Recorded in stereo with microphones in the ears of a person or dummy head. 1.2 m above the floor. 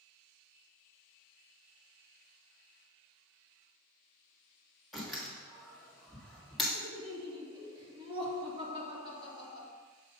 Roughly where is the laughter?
Right.